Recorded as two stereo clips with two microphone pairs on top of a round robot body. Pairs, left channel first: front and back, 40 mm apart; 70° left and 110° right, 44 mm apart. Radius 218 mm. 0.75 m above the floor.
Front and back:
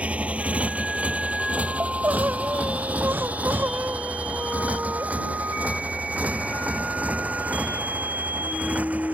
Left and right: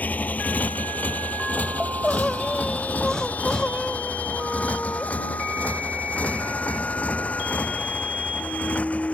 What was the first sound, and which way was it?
A motorcycle, 125° left.